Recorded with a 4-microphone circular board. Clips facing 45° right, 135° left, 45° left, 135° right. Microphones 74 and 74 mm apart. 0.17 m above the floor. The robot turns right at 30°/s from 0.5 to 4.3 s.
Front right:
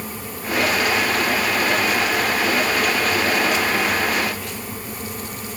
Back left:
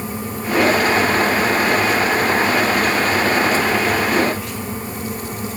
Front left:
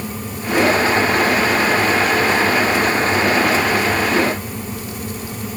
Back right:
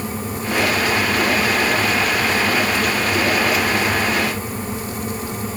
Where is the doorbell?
I don't hear a doorbell.